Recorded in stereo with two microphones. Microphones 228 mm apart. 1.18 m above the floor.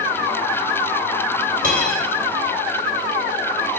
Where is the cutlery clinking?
35° right (ahead or behind), 3 m.